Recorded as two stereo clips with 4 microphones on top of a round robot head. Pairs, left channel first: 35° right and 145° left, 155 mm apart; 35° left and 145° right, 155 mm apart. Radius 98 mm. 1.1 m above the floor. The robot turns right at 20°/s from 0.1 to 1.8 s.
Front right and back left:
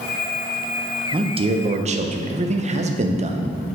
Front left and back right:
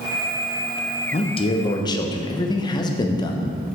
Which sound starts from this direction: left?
A man speaking, at 1.1 s.